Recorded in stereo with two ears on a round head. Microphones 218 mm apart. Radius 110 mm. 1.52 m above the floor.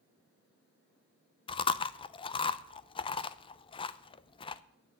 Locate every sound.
1.5 s chewing: 20° left (ahead or behind), 0.5 m